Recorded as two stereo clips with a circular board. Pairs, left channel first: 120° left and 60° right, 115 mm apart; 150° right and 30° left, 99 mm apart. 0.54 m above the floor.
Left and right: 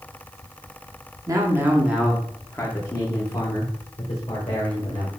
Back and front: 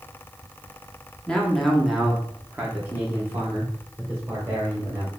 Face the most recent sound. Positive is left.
turn(degrees=90)